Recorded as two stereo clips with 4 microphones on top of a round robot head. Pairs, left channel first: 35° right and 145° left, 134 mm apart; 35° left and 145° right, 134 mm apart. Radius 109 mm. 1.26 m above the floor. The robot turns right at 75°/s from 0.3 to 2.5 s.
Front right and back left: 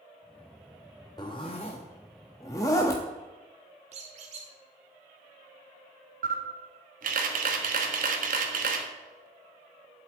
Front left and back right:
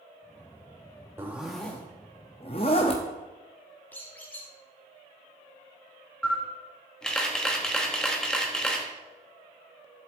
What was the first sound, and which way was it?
A zipper, 80° right.